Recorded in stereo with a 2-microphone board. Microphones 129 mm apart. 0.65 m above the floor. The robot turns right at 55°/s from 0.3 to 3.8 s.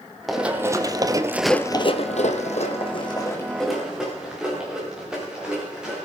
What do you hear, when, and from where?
0.3 s running footsteps: centre (ahead or behind), 1.5 m; by 6.1 s 5° right (ahead or behind), 5.5 m